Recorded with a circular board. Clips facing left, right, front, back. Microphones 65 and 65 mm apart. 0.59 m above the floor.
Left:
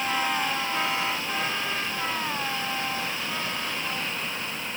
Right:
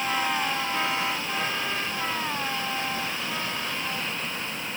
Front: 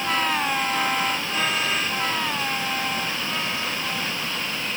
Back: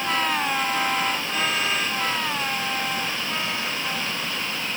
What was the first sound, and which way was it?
Only background noise.